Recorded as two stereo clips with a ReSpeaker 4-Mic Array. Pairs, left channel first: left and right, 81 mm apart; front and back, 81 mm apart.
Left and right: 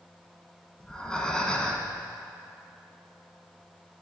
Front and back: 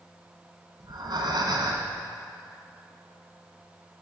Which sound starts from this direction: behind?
Breathing, at 0.8 s.